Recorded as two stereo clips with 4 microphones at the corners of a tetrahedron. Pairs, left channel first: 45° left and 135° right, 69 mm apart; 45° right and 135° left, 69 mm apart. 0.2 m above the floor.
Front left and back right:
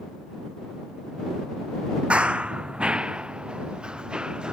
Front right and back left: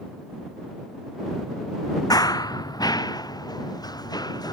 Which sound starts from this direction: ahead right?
Running footsteps, at 2.1 s.